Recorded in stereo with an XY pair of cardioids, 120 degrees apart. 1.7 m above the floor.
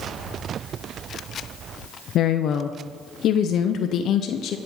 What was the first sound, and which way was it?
A woman speaking, 60° left.